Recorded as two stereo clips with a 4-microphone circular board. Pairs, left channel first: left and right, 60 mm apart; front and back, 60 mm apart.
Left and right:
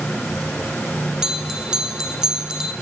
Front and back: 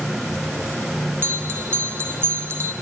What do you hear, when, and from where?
1.2 s a bell: 165° right, 0.5 m